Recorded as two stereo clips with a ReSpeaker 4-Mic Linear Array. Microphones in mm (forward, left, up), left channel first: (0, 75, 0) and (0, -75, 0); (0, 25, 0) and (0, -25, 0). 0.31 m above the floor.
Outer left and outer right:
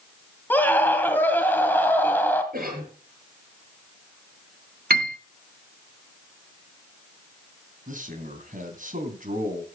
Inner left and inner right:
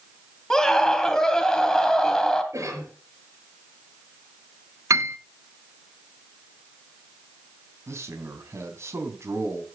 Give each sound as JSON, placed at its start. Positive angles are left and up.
{"t": 0.5, "sound": "a scream", "side_deg": 10, "distance_m": 2.0}
{"t": 2.5, "sound": "a cough", "side_deg": -75, "distance_m": 6.5}
{"t": 4.9, "sound": "a piano", "side_deg": -80, "distance_m": 0.9}
{"t": 7.9, "sound": "a man speaking", "side_deg": -60, "distance_m": 3.0}